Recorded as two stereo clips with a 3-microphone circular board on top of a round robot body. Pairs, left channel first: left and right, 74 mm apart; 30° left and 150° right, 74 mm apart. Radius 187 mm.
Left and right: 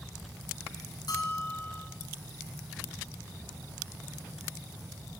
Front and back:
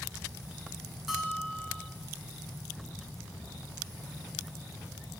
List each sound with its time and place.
1.1 s a bell: 125° left, 0.9 m